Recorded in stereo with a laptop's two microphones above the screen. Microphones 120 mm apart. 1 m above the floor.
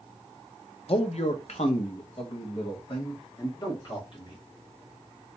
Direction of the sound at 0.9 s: 55° left (ahead or behind).